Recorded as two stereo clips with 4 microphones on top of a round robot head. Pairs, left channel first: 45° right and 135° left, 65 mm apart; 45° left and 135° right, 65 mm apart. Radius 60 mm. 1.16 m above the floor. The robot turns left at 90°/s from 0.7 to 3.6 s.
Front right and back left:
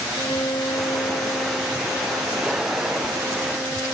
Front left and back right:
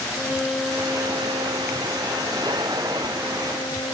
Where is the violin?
60° right, 1.2 m; by 3.9 s 40° left, 1.2 m.